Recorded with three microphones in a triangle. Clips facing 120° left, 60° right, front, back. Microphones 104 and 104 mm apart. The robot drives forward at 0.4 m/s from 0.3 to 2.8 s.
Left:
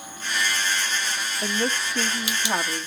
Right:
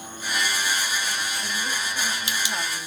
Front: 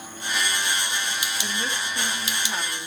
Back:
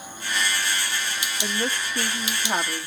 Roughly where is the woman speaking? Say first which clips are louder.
Left 4 dB, back 6 dB; behind left.